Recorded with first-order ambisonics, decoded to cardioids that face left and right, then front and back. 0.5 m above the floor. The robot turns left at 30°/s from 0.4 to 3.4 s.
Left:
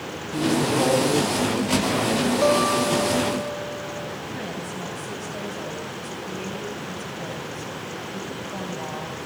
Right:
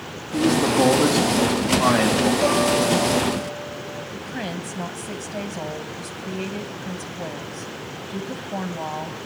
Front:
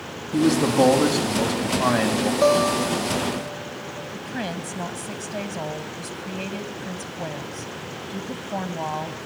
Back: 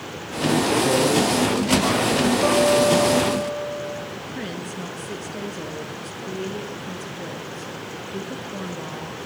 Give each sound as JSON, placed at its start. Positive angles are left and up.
{"t": 0.3, "sound": "a man speaking", "azimuth_deg": -5, "distance_m": 4.5}
{"t": 2.4, "sound": "a guitar", "azimuth_deg": 15, "distance_m": 9.5}
{"t": 4.1, "sound": "a woman speaking", "azimuth_deg": -30, "distance_m": 3.5}